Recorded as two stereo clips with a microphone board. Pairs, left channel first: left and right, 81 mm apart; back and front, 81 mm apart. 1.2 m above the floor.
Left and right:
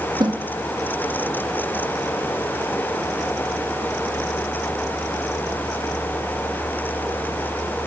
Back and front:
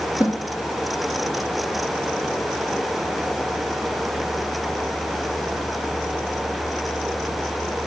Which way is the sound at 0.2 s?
75° right.